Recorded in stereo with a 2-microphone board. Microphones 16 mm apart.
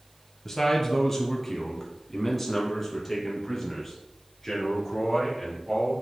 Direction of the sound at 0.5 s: 20° left (ahead or behind).